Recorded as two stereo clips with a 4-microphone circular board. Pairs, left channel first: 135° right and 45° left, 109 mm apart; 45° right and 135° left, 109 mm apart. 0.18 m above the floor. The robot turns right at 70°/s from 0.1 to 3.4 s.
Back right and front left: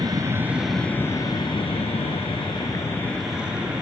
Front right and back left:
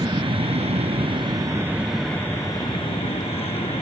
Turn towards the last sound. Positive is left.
turn(degrees=-35)